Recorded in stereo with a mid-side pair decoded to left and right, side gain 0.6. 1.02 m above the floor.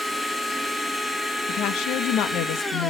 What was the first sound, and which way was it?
A machine running, 10° left.